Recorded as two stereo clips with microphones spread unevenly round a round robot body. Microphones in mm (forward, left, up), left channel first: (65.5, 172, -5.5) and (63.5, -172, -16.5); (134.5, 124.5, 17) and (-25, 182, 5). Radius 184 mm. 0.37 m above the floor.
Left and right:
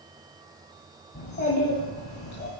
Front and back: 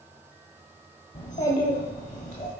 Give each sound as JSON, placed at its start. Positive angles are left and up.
{"t": 1.1, "sound": "a child speaking", "azimuth_deg": 30, "distance_m": 1.3}